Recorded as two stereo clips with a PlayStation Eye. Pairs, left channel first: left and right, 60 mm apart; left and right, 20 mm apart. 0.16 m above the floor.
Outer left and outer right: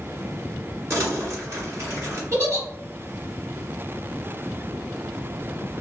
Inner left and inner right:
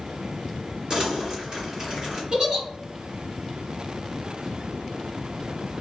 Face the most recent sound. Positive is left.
turn(degrees=-45)  # may be behind; listen again after turning